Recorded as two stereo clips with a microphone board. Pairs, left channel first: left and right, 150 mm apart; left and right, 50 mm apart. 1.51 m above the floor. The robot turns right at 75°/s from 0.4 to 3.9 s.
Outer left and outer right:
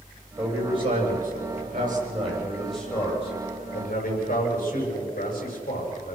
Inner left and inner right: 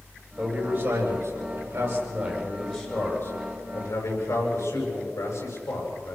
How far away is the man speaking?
About 8 m.